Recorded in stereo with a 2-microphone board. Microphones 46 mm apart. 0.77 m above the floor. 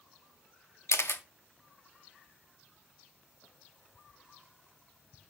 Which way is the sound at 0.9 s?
80° left.